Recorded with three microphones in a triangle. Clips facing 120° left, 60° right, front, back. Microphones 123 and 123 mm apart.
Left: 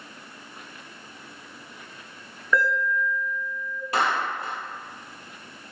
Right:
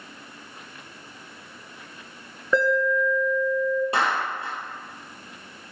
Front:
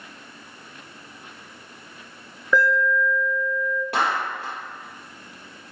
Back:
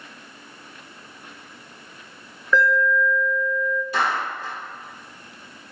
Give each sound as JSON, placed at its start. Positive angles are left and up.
{"t": 2.5, "sound": "an alarm", "azimuth_deg": -60, "distance_m": 1.2}
{"t": 3.9, "sound": "a clap", "azimuth_deg": 5, "distance_m": 2.5}